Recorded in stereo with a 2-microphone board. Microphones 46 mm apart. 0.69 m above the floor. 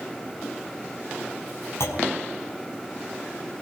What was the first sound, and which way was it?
A clunk, 75° left (ahead or behind).